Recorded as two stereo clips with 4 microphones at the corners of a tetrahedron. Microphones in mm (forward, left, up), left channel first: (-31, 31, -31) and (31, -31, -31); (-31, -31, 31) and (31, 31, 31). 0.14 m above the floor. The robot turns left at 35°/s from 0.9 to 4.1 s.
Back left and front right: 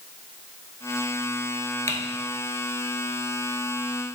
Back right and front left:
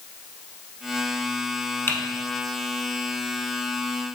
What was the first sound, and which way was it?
Typing on a keyboard, 170° left.